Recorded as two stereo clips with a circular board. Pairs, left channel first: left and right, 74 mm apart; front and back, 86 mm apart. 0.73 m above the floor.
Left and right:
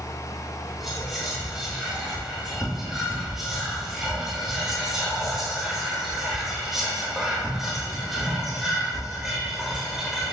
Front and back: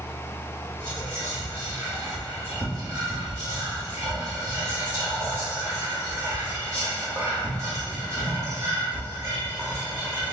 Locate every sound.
0.8 s whispering: 170° right, 1.2 m